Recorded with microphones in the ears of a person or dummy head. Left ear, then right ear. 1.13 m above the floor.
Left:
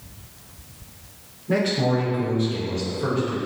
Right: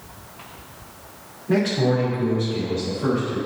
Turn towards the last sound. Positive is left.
turn(degrees=0)  # may be behind; listen again after turning